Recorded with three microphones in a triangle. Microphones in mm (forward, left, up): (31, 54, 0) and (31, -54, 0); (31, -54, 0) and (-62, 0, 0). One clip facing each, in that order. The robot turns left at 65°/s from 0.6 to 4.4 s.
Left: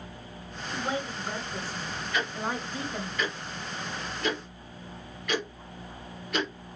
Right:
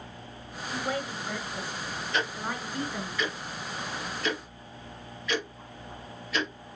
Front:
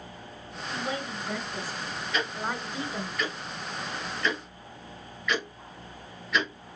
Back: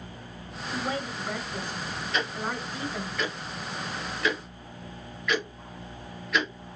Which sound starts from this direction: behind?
A woman speaking, at 0.7 s.